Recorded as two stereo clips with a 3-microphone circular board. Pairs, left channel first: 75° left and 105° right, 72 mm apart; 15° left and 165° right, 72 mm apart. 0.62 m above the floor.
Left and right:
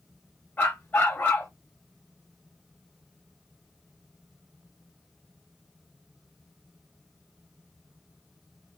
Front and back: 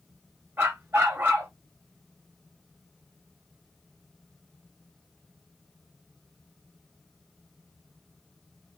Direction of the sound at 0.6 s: 135° left.